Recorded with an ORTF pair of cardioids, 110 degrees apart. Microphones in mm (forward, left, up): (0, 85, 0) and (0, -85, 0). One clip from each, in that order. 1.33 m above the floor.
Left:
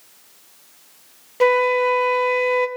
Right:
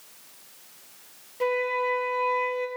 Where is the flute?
50° left, 0.6 m.